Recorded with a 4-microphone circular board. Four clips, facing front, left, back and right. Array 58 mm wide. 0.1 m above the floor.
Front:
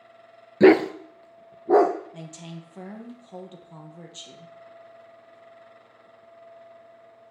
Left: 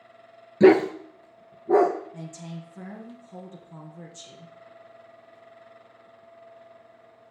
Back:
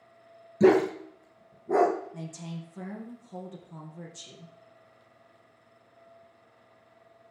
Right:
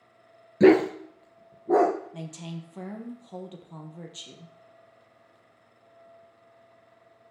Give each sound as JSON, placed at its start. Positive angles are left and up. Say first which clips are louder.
{"t": 0.6, "sound": "a dog barking", "louder": "left 2 dB, front 5 dB", "azimuth_deg": 0, "distance_m": 0.7}
{"t": 2.1, "sound": "a woman speaking", "louder": "right 1 dB, back 1 dB", "azimuth_deg": -55, "distance_m": 2.5}